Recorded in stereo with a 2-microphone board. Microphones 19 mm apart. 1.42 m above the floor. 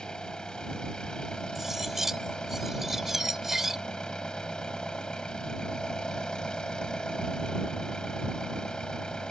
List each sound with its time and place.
0.0 s an engine running: 40° left (ahead or behind)
1.6 s cutlery clinking: 20° right (ahead or behind)